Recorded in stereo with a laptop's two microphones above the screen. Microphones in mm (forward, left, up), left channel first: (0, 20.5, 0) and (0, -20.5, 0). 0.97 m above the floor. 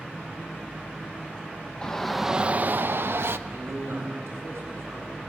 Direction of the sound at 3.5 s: 70° right (ahead or behind).